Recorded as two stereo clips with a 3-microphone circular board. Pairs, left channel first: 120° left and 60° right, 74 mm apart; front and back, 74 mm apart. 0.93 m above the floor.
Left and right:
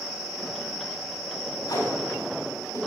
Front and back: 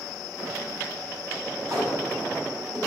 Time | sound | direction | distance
1.7 | tape being pulled | 140° left | 6.5 m